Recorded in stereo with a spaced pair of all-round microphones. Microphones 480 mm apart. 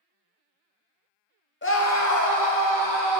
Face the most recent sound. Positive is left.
turn(degrees=40)  # may be behind; listen again after turning